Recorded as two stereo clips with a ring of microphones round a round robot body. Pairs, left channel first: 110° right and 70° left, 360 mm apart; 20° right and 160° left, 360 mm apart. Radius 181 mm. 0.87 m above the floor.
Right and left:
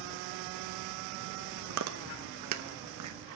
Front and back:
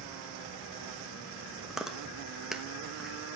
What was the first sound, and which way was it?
Chewing, 70° left.